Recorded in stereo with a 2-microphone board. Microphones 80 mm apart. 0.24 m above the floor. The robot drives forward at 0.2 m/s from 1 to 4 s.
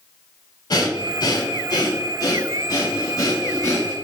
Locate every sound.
0.7 s breathing: 60° left (ahead or behind), 0.8 m; by 4.0 s 40° left (ahead or behind), 1.1 m